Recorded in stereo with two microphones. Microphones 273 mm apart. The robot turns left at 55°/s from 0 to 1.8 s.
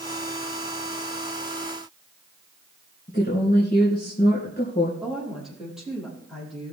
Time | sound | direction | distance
3.1 | a woman speaking | 35° left (ahead or behind) | 3 m
5.0 | a woman speaking | centre (ahead or behind) | 5.5 m